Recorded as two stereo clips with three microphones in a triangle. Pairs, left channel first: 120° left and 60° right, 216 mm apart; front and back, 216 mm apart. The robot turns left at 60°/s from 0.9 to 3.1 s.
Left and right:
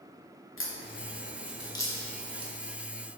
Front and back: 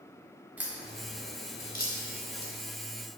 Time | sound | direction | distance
0.6 | a crack | 95° left | 0.7 m